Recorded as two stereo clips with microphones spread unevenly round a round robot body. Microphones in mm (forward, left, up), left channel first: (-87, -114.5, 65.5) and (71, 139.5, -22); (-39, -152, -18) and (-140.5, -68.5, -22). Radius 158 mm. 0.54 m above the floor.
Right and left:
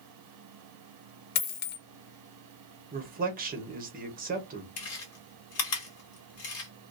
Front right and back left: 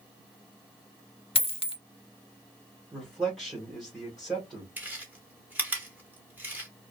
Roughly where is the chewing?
Behind right.